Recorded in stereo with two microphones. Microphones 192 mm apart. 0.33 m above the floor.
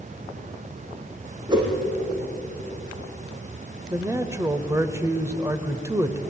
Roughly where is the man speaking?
Centre.